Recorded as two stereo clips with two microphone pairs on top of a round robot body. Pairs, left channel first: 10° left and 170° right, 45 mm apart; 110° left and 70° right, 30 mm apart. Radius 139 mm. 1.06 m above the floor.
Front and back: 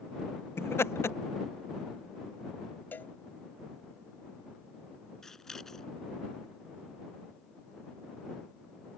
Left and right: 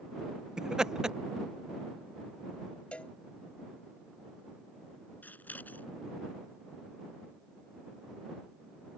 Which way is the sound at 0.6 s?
5° right.